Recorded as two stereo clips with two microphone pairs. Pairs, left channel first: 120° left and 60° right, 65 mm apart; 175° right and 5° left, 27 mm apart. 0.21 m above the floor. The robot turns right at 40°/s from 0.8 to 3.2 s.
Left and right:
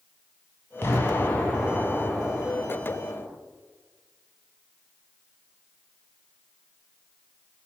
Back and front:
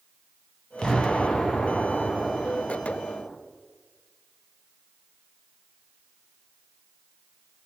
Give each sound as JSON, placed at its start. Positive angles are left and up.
{"t": 0.8, "sound": "an explosion", "azimuth_deg": 150, "distance_m": 0.7}